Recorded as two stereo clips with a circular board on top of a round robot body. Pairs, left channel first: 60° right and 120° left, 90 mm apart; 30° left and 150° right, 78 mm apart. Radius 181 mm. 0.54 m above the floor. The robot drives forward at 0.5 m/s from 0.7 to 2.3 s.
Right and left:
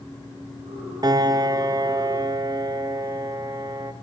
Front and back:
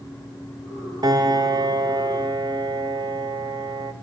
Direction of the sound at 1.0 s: 170° left.